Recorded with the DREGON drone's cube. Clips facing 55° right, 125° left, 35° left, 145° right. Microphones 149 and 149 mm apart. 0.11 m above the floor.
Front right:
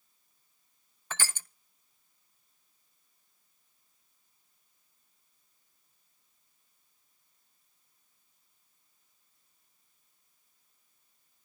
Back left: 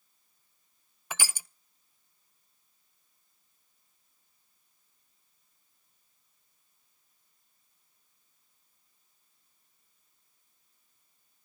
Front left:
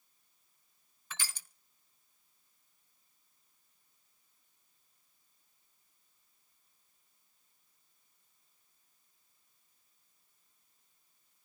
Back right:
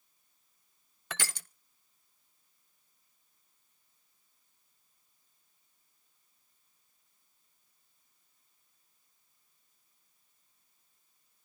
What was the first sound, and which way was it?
Crushing, 155° right.